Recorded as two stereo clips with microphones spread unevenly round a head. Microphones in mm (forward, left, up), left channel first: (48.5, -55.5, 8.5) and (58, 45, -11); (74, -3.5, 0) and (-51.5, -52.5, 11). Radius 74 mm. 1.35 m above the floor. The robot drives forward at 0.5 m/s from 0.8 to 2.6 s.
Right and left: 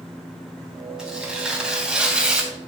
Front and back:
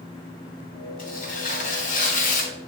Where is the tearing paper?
Straight ahead, 3 m.